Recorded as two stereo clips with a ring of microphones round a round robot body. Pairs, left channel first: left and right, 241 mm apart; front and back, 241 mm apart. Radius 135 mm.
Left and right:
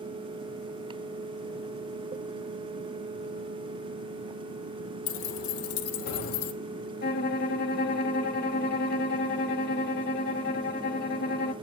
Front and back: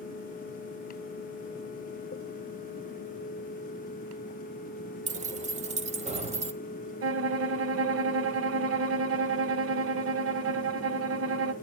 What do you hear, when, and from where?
5.1 s keys jangling: 120° left, 1.1 m; by 6.5 s 115° left, 1.8 m
7.0 s a violin: 145° left, 1.1 m